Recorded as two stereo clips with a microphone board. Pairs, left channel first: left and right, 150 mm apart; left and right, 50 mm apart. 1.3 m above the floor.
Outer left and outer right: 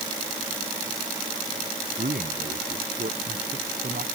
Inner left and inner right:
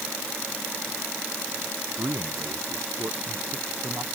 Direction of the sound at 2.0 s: 80° right.